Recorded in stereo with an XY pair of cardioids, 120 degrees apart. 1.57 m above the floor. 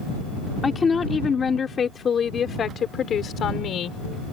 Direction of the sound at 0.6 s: 25° left.